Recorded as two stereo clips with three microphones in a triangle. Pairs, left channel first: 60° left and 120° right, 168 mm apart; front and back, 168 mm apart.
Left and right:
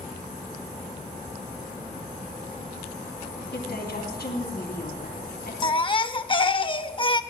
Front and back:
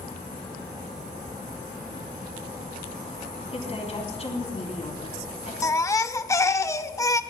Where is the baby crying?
55° left, 0.6 m.